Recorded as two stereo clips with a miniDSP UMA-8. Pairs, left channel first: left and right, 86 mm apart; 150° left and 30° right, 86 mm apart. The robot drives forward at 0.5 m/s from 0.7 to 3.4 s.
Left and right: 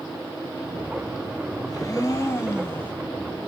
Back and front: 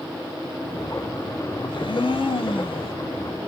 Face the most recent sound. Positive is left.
turn(degrees=160)